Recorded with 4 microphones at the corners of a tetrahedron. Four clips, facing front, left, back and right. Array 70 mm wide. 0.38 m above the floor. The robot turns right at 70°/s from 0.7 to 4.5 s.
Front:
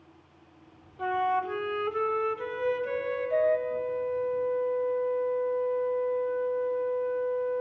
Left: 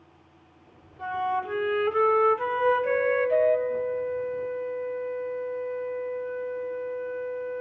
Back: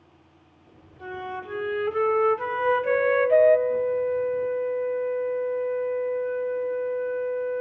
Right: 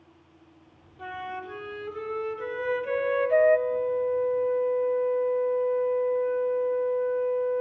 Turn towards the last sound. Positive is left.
turn(degrees=-165)